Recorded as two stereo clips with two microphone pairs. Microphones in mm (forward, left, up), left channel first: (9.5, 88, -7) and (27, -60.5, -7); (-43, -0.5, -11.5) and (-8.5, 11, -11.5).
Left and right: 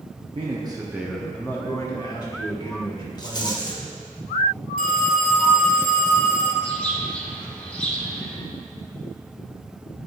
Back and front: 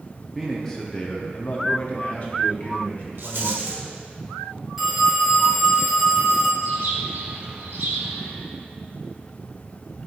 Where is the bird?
15° left, 0.9 m.